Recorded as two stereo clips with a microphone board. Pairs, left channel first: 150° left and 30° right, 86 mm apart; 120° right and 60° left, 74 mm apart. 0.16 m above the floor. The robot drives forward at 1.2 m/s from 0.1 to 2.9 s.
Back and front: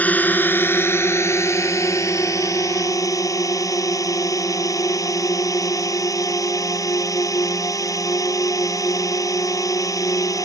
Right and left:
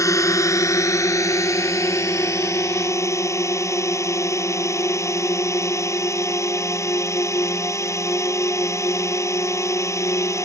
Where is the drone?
145° right; by 10.4 s 165° right.